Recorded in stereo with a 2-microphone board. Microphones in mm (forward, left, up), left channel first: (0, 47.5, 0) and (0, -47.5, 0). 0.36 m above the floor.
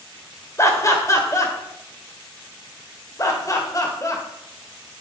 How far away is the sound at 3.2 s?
About 1.2 m.